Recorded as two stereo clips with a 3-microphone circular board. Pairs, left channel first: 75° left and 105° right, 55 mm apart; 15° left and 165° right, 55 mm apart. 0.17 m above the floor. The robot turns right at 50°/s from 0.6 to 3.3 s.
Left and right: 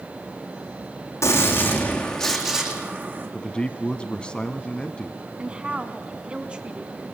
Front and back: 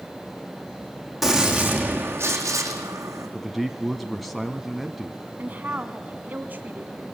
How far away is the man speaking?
About 1.0 m.